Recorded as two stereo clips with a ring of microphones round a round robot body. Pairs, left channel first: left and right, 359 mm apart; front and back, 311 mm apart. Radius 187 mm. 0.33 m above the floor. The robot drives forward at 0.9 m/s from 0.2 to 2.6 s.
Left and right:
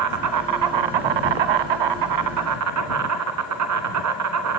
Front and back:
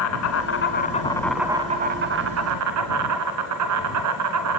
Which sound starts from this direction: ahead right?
An insect, at 0.0 s.